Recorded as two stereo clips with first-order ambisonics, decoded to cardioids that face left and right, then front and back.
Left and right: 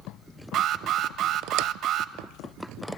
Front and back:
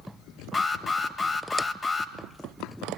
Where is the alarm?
70° right, 1.2 m.